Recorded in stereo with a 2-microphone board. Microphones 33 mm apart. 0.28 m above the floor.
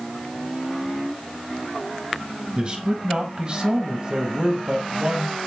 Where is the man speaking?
40° right (ahead or behind), 1.2 m.